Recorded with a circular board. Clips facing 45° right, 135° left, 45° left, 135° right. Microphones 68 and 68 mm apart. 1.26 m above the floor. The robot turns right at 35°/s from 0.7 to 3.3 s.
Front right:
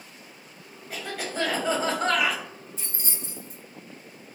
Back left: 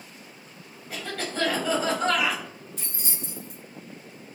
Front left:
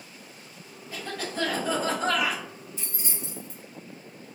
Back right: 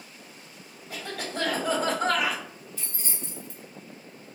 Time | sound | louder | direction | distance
0.9 | a cough | even, front left 1 dB | 130° right | 0.8 m
2.8 | keys jangling | back left 1 dB, front left 2 dB | 115° left | 0.9 m